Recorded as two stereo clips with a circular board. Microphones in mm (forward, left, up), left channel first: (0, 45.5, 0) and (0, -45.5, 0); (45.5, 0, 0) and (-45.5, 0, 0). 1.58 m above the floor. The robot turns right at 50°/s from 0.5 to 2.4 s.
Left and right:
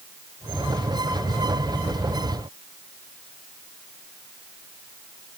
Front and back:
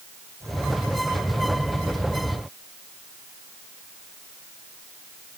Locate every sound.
Only background noise.